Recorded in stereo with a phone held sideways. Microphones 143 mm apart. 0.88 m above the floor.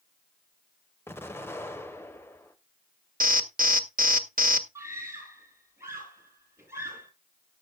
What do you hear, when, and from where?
1.1 s an explosion: 15° left (ahead or behind), 1.0 m
3.2 s an alarm: 75° right (ahead or behind), 0.9 m
4.8 s a scream: 20° right (ahead or behind), 10 m